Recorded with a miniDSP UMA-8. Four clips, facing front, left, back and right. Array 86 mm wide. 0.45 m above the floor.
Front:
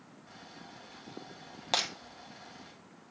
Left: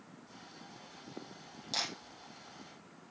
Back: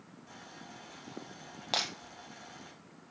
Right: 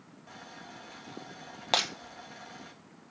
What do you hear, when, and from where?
0.3 s boiling: 105° right, 4 m
1.7 s breaking glass: 85° right, 1.8 m